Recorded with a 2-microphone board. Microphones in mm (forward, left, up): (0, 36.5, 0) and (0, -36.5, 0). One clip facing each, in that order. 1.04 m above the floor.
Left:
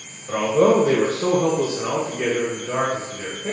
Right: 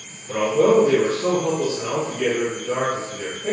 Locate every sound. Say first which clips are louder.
0.3 s a man speaking: even; 65° left (ahead or behind), 1.4 m; by 3.5 s 15° right (ahead or behind), 2 m